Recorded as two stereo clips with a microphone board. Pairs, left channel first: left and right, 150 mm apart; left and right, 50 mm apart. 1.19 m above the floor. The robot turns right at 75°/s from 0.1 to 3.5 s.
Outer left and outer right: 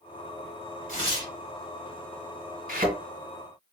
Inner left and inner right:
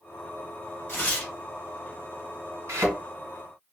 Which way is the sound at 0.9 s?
130° left.